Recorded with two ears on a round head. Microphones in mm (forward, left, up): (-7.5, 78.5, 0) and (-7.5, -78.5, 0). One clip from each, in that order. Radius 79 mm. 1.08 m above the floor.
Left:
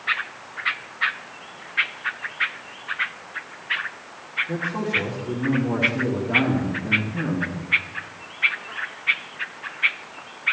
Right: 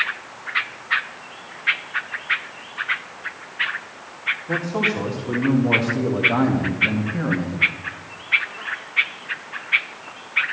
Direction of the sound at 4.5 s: 60° right (ahead or behind).